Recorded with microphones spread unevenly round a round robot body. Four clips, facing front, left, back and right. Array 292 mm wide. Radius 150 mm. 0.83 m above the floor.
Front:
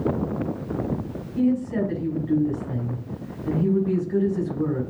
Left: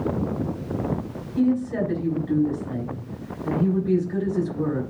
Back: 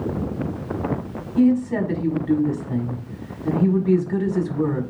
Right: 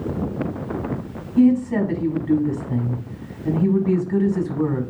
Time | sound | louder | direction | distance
1.4 | a woman speaking | right 6 dB, back 4 dB | 145° right | 6 m